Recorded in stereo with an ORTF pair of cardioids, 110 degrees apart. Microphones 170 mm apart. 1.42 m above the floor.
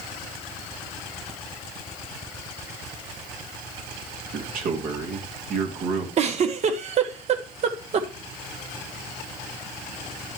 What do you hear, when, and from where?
4.3 s a man speaking: 60° right, 2.5 m
6.2 s a giggle: 45° right, 1.2 m